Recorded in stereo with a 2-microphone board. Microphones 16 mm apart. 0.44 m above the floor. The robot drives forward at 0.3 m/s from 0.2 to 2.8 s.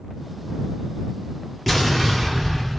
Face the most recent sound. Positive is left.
turn(degrees=0)  # may be behind; listen again after turning